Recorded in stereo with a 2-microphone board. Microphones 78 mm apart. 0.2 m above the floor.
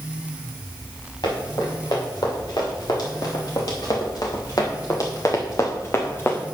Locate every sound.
1.2 s running footsteps: 65° left (ahead or behind), 4.5 m; by 6.5 s 25° left (ahead or behind), 1.3 m